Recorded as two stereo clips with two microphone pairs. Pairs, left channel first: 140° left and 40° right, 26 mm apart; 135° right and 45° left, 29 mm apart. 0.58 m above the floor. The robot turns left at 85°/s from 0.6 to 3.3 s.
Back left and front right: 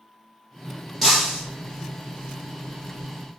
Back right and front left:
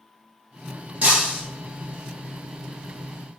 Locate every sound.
1.0 s breaking glass: 50° left, 3 m; by 1.4 s 20° left, 3 m